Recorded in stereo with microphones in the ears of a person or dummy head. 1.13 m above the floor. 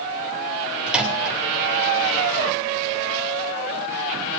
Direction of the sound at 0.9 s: 10° right (ahead or behind).